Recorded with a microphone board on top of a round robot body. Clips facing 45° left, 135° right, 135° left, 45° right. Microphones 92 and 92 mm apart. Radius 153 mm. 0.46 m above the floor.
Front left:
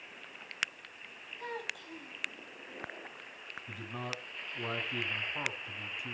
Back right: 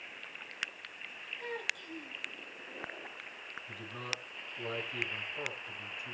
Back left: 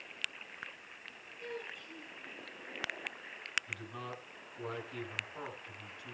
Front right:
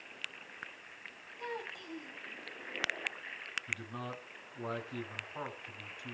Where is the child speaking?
20° right, 3.5 m.